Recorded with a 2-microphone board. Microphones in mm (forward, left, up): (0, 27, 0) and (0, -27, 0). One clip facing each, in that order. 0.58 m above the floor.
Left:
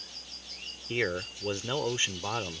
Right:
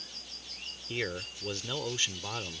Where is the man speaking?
25° left (ahead or behind).